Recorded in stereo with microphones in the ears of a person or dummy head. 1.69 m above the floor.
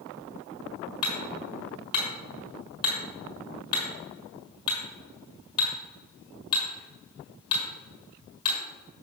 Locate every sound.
1.0 s hammering: 30° left (ahead or behind), 4.5 m